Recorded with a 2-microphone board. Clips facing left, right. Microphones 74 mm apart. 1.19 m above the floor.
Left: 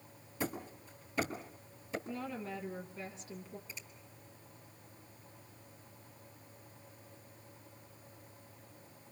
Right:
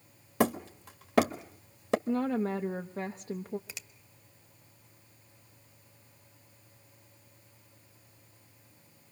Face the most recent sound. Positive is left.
turn(degrees=-80)